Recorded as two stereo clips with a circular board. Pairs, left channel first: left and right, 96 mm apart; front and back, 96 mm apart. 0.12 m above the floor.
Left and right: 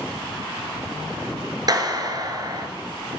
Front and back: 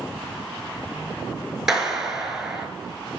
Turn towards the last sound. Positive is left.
turn(degrees=-95)